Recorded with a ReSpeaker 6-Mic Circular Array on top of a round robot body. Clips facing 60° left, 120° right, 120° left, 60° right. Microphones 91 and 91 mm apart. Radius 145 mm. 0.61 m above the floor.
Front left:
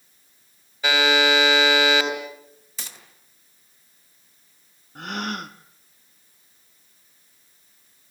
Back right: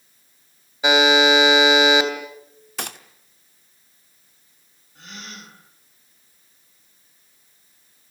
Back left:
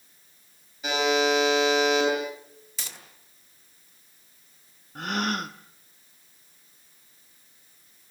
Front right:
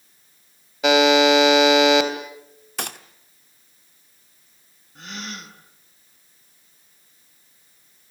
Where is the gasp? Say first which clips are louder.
Front left 11 dB, back left 8 dB; 85° left, 1.3 m.